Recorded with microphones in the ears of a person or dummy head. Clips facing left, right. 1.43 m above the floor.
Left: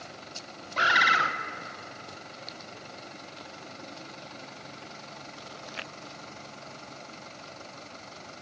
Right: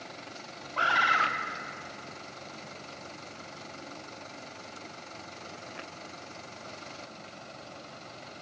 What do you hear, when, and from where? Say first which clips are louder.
0.8 s a bird: left 2 dB; 30° left (ahead or behind), 0.6 m